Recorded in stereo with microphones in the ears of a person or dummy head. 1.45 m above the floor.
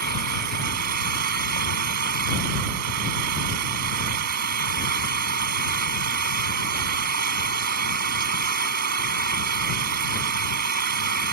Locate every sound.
0.0 s an engine running: 60° right (ahead or behind)